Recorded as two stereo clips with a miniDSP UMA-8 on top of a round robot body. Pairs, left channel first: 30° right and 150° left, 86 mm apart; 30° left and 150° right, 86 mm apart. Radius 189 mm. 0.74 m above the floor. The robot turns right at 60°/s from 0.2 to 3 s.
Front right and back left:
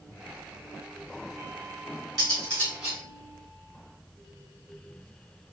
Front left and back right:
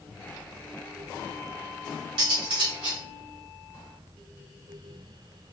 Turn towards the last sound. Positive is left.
turn(degrees=-120)